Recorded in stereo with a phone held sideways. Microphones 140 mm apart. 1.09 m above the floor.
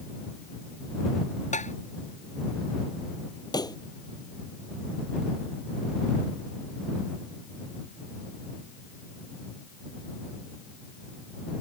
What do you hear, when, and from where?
1.5 s tapping: 60° left (ahead or behind)
3.5 s a pop: 30° left (ahead or behind)